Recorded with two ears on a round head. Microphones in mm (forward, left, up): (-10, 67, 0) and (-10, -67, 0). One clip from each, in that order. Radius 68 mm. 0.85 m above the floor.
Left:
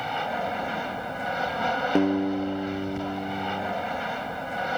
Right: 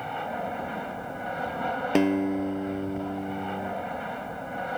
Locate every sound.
0.0 s an aircraft: 75° left (ahead or behind)
1.9 s a guitar: 50° right (ahead or behind)